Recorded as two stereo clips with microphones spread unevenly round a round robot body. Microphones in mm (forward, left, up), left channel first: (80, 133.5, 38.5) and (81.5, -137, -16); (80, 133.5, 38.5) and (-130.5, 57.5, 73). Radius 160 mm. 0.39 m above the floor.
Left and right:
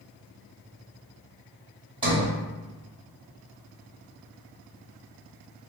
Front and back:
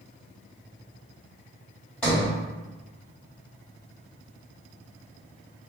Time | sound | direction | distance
2.0 | a sliding door | 50° right | 1.4 m